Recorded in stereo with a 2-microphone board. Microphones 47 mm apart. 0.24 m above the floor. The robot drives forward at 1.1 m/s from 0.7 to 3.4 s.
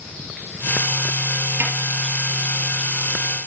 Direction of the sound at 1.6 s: 65° right (ahead or behind).